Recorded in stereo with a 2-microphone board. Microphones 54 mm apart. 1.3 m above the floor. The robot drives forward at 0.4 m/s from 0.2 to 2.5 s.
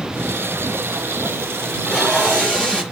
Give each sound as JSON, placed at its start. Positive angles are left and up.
{"t": 1.6, "sound": "tape being pulled", "side_deg": 20, "distance_m": 4.0}